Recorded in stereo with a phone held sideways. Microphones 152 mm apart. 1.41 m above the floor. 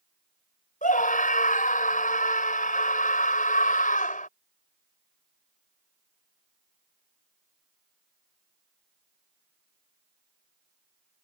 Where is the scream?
60° left (ahead or behind).